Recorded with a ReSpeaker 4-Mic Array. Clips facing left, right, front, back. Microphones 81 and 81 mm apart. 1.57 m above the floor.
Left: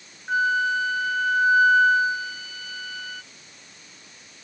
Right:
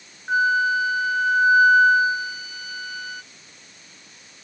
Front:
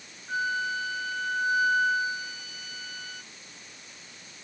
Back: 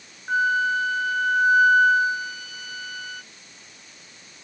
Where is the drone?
No drone in this recording.